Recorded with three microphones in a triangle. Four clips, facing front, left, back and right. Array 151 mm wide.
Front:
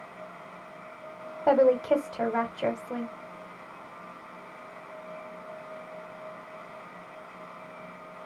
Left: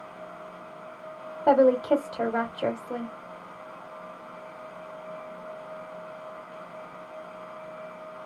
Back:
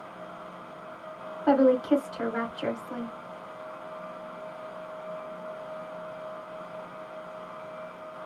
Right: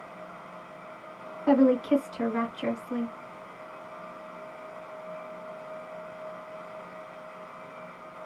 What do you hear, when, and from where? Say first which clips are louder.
1.5 s a woman speaking: left 2 dB, even; 50° left, 1.8 m